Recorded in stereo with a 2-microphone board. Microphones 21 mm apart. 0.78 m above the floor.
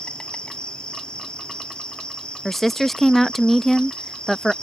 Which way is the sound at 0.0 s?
55° left (ahead or behind).